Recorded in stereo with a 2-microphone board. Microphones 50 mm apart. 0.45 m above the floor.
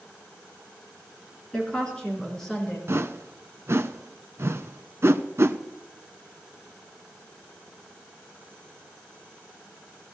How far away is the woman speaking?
About 4.5 m.